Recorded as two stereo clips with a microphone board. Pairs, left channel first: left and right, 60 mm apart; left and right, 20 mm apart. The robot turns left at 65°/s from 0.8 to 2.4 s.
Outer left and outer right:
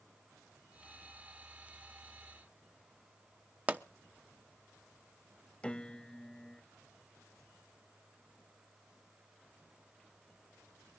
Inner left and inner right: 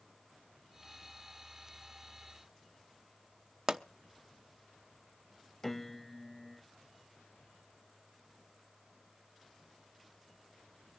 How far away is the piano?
About 0.8 m.